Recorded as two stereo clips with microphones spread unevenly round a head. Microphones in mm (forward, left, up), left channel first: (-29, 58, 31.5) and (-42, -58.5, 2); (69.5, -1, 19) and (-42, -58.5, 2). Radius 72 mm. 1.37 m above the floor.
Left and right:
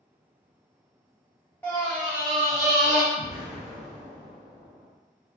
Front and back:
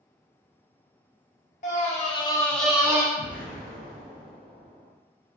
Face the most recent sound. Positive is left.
turn(degrees=65)